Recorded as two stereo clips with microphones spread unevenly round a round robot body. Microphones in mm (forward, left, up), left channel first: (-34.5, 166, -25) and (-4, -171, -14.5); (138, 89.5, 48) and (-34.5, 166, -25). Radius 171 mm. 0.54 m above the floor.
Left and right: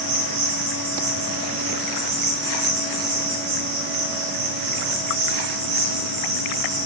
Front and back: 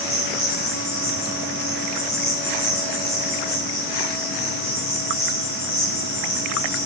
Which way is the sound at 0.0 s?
60° right.